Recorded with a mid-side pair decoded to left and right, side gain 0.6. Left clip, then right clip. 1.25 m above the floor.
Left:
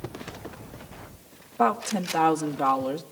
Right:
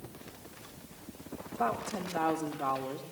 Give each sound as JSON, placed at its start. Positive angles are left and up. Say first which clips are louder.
{"t": 1.6, "sound": "a woman speaking", "louder": "left 9 dB", "azimuth_deg": 65, "distance_m": 2.0}